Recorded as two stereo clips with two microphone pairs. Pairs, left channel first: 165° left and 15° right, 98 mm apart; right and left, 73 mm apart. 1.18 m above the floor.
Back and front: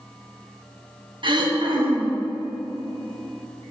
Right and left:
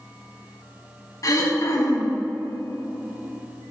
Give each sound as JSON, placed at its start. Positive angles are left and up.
{"t": 1.2, "sound": "throat clearing", "azimuth_deg": -50, "distance_m": 1.1}